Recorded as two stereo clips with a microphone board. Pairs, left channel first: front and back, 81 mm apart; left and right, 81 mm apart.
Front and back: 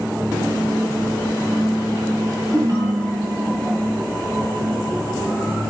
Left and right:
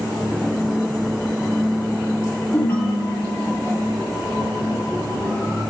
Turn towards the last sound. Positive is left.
turn(degrees=145)